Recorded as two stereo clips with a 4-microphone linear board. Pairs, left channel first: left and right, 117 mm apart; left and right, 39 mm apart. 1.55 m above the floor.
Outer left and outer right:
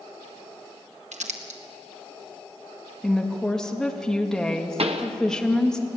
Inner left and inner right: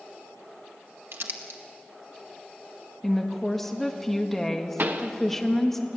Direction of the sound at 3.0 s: 5° left (ahead or behind).